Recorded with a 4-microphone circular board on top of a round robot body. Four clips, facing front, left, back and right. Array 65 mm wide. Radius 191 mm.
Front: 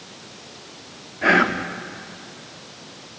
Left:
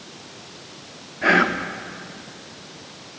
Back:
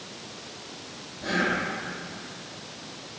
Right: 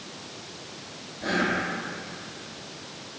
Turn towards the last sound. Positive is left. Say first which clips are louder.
# left 8 dB, front 9 dB
turn(degrees=35)